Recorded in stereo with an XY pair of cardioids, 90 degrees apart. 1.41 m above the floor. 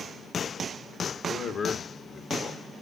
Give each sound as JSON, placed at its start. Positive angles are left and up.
{"t": 1.2, "sound": "a man speaking", "azimuth_deg": 60, "distance_m": 2.0}